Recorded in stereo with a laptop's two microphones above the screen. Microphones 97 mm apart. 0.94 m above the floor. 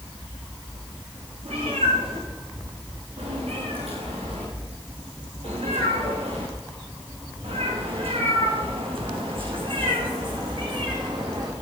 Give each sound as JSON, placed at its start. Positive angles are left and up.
{"t": 1.4, "sound": "a cat meowing", "side_deg": -75, "distance_m": 8.5}